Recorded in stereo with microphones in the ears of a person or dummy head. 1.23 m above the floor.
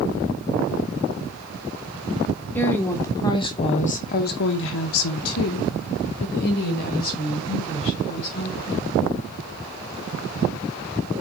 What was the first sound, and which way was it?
A woman speaking, 10° left (ahead or behind).